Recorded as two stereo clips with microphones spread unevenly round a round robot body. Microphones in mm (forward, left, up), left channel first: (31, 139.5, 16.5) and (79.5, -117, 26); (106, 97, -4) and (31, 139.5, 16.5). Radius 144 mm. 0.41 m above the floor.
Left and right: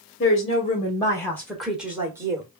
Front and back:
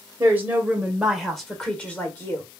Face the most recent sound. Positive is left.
turn(degrees=-5)